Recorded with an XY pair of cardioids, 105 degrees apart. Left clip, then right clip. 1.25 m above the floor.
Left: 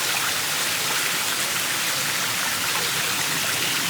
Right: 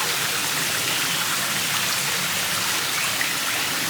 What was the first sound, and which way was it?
Only background noise.